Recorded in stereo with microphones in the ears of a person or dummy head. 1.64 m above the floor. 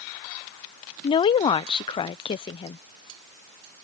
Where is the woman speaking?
20° left (ahead or behind).